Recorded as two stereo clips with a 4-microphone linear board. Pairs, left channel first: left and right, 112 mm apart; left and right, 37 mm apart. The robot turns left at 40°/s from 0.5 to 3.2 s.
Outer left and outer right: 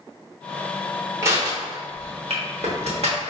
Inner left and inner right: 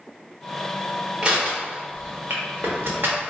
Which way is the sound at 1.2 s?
25° right (ahead or behind).